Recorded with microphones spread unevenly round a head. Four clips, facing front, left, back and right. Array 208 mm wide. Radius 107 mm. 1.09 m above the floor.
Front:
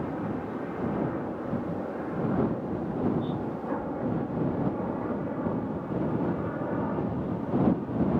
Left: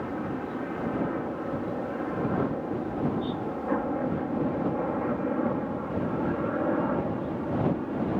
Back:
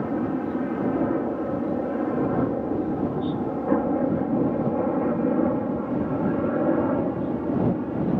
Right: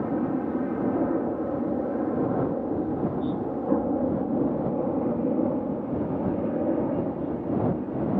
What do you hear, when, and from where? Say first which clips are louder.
0.0 s a helicopter: right 6 dB, back 6 dB; 140° right; by 8.2 s 165° right